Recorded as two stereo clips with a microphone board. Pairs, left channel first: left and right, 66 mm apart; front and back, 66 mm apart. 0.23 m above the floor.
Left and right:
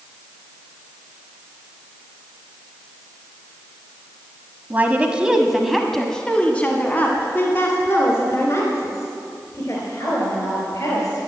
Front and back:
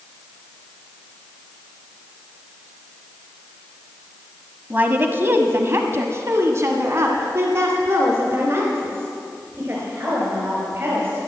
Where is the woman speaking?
130° right, 1.3 m; by 11.2 s 125° left, 4 m.